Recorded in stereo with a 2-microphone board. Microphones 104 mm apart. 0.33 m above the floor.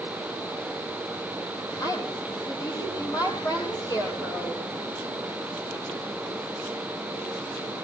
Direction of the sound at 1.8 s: 40° left (ahead or behind).